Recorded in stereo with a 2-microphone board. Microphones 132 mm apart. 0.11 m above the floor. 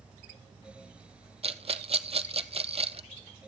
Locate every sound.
1.4 s a rattle: 50° right (ahead or behind), 0.8 m